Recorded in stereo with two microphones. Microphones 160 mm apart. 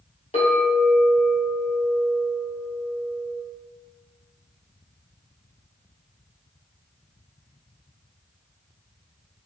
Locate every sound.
0.3 s a clink: 40° left (ahead or behind), 1.5 m